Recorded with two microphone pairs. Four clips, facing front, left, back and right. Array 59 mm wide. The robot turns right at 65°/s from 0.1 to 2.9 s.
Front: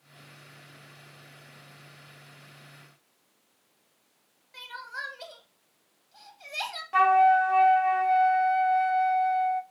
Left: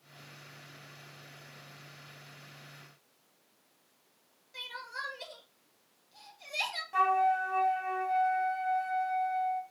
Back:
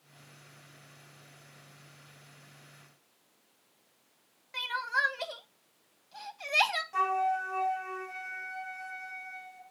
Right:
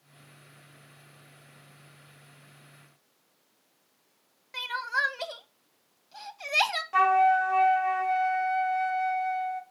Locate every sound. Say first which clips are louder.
4.5 s crying: right 12 dB, back 8 dB; 120° right, 1.4 m
6.9 s a flute: right 5 dB, front 11 dB; 35° right, 1.2 m